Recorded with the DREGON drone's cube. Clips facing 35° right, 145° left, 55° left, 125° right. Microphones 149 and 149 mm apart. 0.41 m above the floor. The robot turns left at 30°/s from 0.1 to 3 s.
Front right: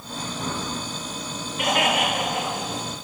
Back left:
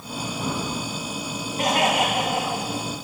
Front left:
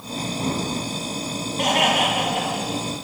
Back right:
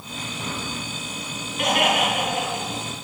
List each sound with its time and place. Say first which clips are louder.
1.6 s laughter: back left 1 dB, front left 1 dB; 100° left, 3 m; by 2.8 s 65° left, 3 m